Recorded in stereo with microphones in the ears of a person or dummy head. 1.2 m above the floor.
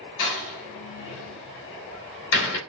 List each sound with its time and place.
0.2 s a door slam: 70° left (ahead or behind), 2.5 m